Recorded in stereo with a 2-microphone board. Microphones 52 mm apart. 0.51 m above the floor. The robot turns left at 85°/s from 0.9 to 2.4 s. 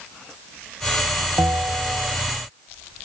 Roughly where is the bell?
Right.